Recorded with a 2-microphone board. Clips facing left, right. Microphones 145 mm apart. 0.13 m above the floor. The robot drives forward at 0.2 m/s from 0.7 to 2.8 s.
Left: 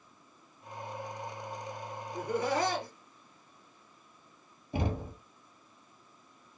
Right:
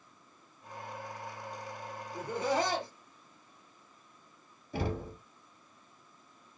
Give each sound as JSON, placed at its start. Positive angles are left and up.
{"t": 2.1, "sound": "laughter", "side_deg": -25, "distance_m": 2.0}
{"t": 4.7, "sound": "knocking", "side_deg": 20, "distance_m": 1.5}